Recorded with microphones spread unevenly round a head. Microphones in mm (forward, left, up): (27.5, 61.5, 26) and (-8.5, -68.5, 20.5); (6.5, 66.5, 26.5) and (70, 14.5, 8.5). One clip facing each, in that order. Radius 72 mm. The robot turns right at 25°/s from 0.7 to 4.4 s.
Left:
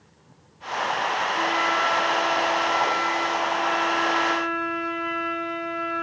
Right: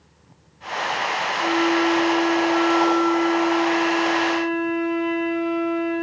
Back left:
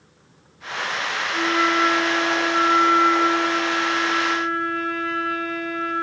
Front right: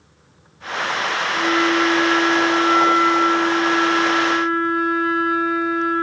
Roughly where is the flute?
Behind left.